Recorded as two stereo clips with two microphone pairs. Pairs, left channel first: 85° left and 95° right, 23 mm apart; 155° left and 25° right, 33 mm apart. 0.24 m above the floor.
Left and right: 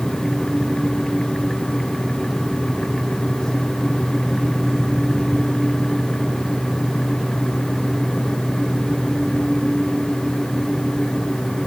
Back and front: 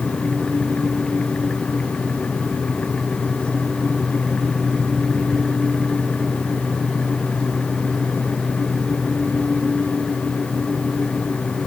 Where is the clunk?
I don't hear a clunk.